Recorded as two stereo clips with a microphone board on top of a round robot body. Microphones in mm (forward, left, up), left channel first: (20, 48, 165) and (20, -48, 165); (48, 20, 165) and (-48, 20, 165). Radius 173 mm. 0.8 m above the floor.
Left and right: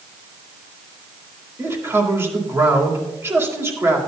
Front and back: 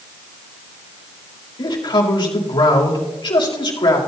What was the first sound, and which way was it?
A man speaking, 30° right.